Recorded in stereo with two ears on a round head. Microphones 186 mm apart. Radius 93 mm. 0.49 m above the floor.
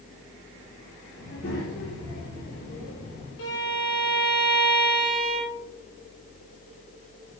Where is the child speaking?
55° left (ahead or behind), 5.5 m; by 3.3 s 65° left (ahead or behind), 6.5 m.